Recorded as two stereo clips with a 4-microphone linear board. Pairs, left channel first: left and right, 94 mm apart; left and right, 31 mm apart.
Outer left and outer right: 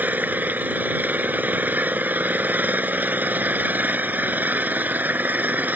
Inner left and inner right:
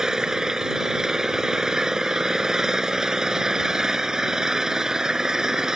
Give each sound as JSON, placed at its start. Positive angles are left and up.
{"t": 0.0, "sound": "an engine running", "side_deg": -20}